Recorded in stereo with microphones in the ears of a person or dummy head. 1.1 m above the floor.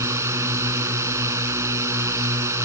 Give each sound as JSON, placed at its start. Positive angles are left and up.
{"t": 0.0, "sound": "a drone", "side_deg": -20}